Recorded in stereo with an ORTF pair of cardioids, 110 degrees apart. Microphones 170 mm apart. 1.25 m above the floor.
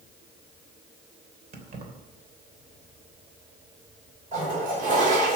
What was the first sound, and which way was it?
Keys jangling, 55° right.